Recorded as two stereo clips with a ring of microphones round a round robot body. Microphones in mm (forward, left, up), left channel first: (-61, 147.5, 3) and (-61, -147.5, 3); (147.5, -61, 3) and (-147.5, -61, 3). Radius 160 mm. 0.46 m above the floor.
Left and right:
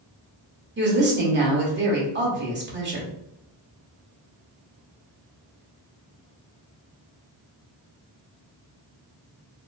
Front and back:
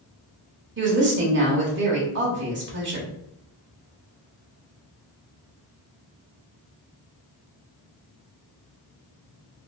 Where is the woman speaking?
135° right, 1.4 m.